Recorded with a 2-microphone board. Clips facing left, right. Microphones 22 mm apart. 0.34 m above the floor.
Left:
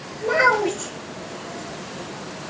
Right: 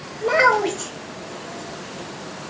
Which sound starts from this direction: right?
A child speaking, at 0.2 s.